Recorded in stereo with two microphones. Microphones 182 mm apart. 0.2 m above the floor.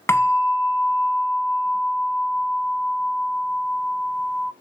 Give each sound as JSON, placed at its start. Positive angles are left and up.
{"t": 0.1, "sound": "a bell", "side_deg": 15, "distance_m": 0.8}